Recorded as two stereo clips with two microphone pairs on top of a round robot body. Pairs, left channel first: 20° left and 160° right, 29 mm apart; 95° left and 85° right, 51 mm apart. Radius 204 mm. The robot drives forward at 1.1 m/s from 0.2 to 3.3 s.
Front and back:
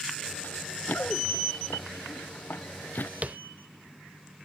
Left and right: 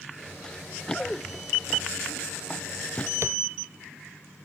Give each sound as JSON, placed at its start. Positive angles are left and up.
{"t": 0.4, "sound": "running footsteps", "azimuth_deg": 20}
{"t": 3.2, "sound": "tapping", "azimuth_deg": -115}